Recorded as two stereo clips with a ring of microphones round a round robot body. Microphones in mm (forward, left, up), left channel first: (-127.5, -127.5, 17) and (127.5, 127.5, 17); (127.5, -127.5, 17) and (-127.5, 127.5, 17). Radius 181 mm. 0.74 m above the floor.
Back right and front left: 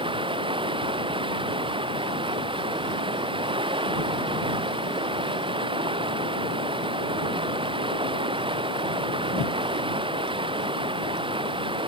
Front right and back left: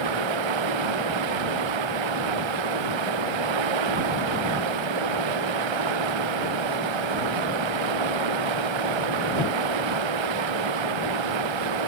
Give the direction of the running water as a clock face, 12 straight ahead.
8 o'clock.